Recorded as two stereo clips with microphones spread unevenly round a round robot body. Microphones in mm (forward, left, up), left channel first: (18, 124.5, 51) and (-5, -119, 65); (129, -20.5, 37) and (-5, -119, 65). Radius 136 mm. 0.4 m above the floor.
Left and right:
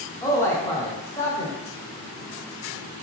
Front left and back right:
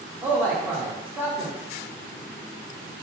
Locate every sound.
0.2 s a man speaking: 130° left, 0.9 m